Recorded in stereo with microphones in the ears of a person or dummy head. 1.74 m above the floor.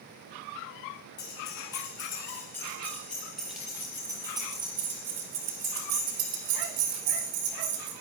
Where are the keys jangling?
30° left (ahead or behind), 3 m; by 7.9 s 65° right (ahead or behind), 3 m.